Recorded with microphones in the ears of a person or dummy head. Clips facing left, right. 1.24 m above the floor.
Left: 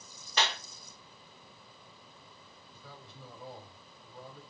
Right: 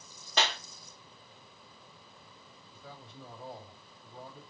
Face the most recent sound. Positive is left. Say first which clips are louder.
# right 3 dB
turn(degrees=-60)  # may be behind; listen again after turning